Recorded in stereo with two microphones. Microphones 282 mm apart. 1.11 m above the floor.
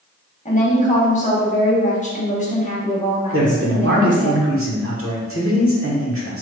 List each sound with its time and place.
0.5 s a woman speaking: 25° left (ahead or behind), 1.0 m
3.3 s a man speaking: 50° right (ahead or behind), 0.9 m